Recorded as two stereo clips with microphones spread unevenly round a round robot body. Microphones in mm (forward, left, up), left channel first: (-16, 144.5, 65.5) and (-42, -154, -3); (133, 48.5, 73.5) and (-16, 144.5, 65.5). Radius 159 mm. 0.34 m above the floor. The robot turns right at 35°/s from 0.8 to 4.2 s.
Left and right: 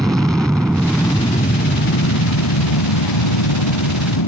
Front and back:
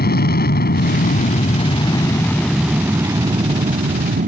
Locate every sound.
0.0 s an aircraft: 10° right; by 4.3 s 115° left